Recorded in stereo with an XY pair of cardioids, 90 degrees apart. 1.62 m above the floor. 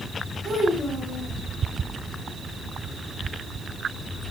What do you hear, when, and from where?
0.4 s a child speaking: 60° right, 1.6 m